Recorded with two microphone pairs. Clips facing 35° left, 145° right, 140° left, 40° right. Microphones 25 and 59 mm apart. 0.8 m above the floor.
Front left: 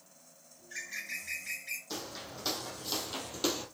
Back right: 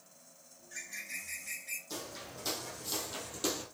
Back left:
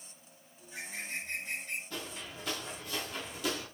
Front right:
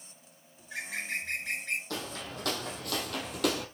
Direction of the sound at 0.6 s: 25° right.